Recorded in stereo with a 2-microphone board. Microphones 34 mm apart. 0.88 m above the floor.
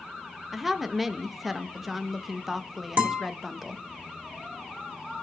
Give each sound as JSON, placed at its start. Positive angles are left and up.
{"t": 0.5, "sound": "a woman speaking", "side_deg": -5, "distance_m": 0.6}
{"t": 3.0, "sound": "a guitar", "side_deg": -50, "distance_m": 2.0}